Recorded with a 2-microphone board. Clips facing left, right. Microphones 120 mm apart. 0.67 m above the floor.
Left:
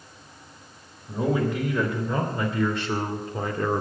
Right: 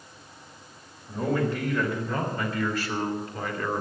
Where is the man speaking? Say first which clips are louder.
Left 2 dB; 15° left (ahead or behind), 3 m; by 3.8 s 35° left (ahead or behind), 1.8 m.